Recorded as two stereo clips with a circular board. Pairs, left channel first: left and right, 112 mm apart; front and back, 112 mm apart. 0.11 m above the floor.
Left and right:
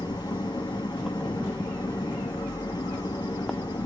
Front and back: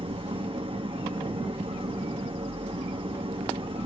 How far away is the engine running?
About 2.5 m.